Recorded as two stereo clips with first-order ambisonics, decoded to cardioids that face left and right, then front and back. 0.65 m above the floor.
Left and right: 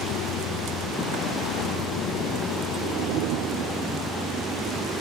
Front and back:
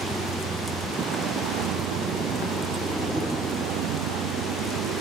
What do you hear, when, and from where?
0.0 s a vehicle: 125° left; by 5.0 s 165° left